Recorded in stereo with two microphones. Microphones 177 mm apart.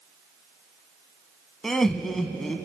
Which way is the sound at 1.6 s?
Centre (ahead or behind).